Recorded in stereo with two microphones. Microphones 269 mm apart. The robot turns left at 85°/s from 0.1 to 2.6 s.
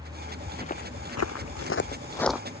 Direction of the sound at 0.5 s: 10° left (ahead or behind).